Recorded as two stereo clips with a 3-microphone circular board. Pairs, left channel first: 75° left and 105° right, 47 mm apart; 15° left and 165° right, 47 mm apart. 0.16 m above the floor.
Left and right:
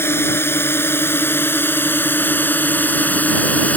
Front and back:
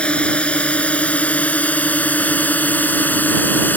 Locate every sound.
0.0 s a drone: 75° left; by 3.8 s 35° left